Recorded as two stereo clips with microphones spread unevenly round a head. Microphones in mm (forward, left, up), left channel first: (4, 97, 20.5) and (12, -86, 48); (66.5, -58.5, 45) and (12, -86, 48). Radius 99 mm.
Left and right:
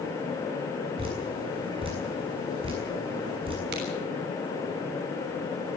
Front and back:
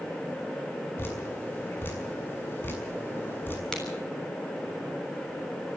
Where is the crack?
50° right, 7 m.